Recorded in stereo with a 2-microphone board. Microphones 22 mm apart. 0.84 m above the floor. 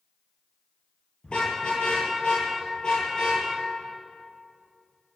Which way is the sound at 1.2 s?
45° left (ahead or behind).